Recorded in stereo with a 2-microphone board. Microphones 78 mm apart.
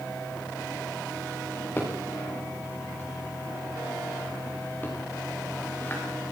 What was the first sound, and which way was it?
A drawer, 25° left (ahead or behind).